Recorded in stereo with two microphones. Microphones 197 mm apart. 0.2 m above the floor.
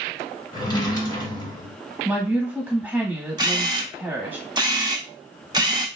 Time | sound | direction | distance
0.5 | a drawer | 20° left (ahead or behind) | 1.0 m
2.0 | a woman speaking | 10° right (ahead or behind) | 1.2 m
3.4 | a camera shutter | 20° right (ahead or behind) | 0.5 m